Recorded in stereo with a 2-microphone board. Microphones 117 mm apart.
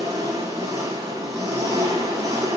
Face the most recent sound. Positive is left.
turn(degrees=-30)  # may be behind; listen again after turning